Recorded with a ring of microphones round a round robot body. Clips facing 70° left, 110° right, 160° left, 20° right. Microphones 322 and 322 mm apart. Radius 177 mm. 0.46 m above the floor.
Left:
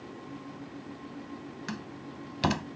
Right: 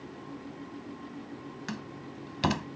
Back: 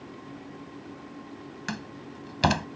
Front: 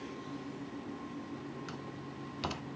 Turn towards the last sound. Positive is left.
turn(degrees=160)